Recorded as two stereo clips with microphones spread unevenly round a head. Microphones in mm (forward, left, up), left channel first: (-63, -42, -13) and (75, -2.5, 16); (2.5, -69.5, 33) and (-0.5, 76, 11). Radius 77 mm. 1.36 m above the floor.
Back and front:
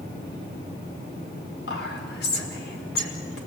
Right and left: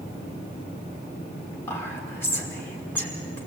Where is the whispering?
165° right, 5 m.